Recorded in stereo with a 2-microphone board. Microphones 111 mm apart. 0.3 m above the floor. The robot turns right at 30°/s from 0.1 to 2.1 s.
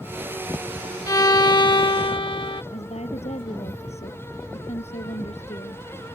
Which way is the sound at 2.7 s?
75° left (ahead or behind).